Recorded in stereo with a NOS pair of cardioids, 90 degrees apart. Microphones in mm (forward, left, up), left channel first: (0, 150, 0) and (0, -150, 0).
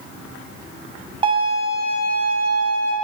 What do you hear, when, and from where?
1.2 s a violin: 20° right, 0.6 m